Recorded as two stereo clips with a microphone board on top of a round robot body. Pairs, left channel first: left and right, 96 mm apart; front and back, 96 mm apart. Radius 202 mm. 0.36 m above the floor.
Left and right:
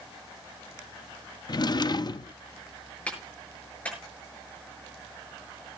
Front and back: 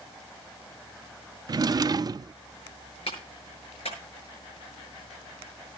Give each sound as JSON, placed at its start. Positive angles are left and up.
{"t": 1.5, "sound": "a drawer", "azimuth_deg": 130, "distance_m": 0.5}
{"t": 3.1, "sound": "a clap", "azimuth_deg": 15, "distance_m": 7.0}